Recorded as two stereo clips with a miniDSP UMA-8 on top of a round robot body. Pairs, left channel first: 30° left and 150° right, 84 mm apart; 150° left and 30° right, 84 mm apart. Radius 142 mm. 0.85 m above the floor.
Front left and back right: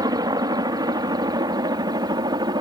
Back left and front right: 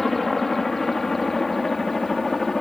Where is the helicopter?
125° right.